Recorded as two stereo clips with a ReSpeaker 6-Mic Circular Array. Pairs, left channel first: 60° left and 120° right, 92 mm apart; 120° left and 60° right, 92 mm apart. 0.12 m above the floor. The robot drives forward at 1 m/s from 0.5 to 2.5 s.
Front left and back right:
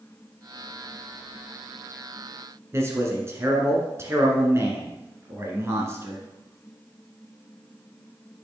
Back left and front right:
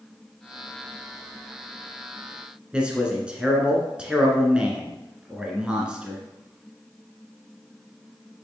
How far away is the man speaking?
About 1.5 m.